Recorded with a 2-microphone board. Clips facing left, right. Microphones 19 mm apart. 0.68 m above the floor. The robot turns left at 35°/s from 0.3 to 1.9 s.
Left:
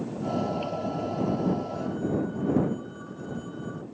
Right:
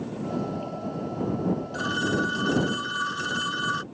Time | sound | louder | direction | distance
1.7 | a phone ringing | right 3 dB | 80° right | ?